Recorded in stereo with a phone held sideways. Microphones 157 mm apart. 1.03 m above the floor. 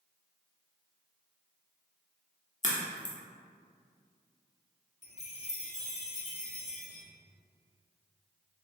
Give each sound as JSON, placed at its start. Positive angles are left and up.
{"t": 2.6, "sound": "a crack", "side_deg": 50, "distance_m": 0.8}
{"t": 5.0, "sound": "a chime", "side_deg": 45, "distance_m": 0.7}